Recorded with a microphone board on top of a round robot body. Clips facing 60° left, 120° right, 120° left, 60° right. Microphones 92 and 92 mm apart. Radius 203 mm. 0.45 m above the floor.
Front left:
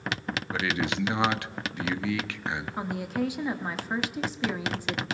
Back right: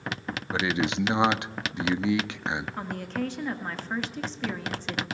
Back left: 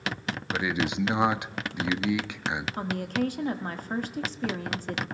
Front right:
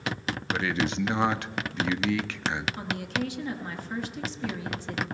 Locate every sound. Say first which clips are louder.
0.5 s a man speaking: back right 3 dB, even; 175° right, 0.8 m
2.8 s a woman speaking: front left 2 dB, back left 2 dB; 140° left, 1.5 m